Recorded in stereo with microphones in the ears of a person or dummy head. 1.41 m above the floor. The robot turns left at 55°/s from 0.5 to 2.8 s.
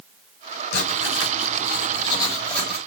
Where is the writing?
105° left, 4.5 m; by 2.9 s 10° right, 4.5 m.